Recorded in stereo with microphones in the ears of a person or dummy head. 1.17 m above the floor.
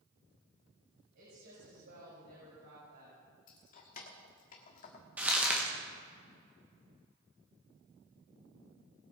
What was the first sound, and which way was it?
A woman speaking, 65° right (ahead or behind).